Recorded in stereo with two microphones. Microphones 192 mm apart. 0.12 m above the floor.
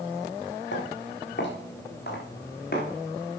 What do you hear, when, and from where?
0.7 s footsteps: 70° left (ahead or behind), 3.5 m; by 2.9 s 55° left (ahead or behind), 5.5 m